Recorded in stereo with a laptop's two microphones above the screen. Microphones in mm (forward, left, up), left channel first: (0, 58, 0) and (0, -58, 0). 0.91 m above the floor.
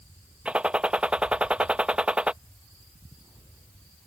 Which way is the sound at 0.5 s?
10° right (ahead or behind).